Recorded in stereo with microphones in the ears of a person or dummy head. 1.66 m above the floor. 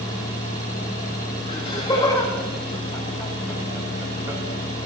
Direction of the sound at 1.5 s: 25° left (ahead or behind).